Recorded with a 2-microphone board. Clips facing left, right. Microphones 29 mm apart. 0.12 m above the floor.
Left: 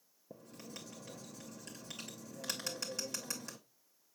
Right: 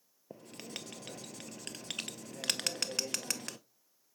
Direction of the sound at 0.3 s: 60° right (ahead or behind).